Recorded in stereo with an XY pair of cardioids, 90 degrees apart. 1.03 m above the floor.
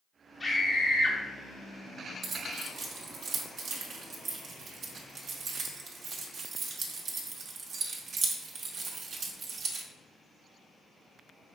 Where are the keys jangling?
60° right, 0.8 m.